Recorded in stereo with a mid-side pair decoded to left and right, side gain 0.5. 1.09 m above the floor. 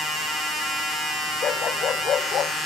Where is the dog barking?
50° left.